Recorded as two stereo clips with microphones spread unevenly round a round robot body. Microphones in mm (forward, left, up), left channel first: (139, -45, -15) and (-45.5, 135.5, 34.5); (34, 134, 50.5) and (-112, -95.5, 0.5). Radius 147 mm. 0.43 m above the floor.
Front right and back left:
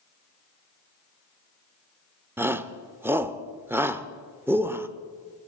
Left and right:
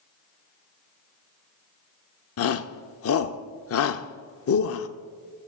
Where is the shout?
45° left, 1.1 m.